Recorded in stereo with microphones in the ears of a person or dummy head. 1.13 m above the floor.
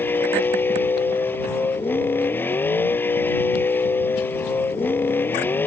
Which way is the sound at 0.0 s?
5° left (ahead or behind).